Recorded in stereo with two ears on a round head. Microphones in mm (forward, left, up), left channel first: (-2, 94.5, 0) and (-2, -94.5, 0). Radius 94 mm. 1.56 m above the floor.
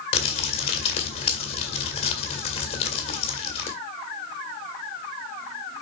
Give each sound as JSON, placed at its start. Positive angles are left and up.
{"t": 0.1, "sound": "crumpling", "side_deg": 30, "distance_m": 1.6}